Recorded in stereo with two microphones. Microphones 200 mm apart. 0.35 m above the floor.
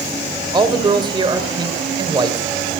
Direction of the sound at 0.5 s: 20° right (ahead or behind).